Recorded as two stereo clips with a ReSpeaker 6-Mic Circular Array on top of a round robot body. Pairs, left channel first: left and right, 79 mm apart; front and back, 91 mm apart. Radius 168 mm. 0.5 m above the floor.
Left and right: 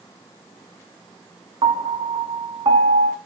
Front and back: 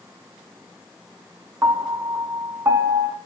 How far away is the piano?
About 0.9 m.